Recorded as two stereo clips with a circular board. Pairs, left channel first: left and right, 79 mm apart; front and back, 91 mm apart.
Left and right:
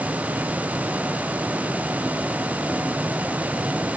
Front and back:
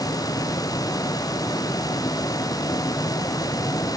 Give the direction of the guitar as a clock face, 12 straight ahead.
No guitar in this recording.